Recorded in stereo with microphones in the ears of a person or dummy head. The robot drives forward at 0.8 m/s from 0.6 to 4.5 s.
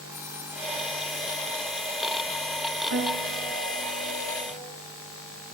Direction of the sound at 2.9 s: 70° right (ahead or behind).